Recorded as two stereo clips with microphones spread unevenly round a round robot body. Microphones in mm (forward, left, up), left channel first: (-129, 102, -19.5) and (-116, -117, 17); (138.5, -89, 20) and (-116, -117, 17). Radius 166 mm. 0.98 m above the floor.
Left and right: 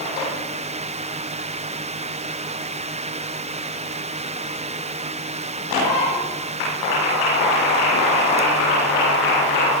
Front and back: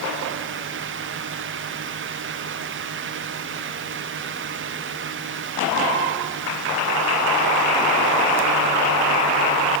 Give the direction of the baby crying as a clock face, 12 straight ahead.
I don't hear a baby crying.